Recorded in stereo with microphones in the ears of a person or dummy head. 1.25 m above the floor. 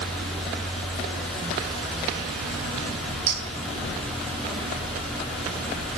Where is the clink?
35° right (ahead or behind), 9 m.